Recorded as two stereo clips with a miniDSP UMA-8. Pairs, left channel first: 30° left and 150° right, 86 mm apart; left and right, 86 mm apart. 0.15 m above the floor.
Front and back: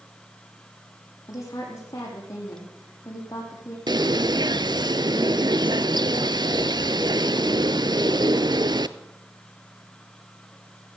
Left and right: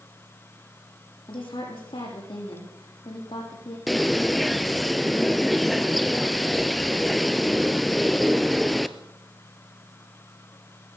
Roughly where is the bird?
Behind.